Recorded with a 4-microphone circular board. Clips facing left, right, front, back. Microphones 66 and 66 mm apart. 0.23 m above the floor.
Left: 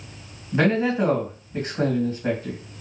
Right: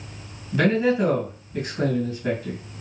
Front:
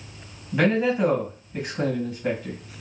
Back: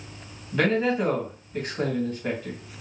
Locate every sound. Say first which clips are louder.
0.5 s a man speaking: right 1 dB, front 2 dB; 75° left, 1.7 m